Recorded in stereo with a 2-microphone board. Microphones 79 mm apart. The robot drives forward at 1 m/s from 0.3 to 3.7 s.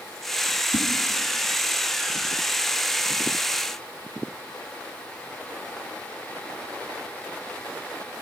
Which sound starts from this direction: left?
A whoosh, at 0.7 s.